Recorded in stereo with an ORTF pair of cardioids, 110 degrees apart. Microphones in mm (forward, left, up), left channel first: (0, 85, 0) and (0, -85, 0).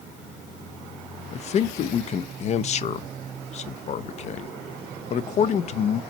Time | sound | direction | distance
1.3 | a man speaking | 45° left | 0.7 m